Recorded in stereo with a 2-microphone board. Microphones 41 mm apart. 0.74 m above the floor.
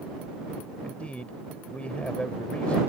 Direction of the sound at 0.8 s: 35° left (ahead or behind).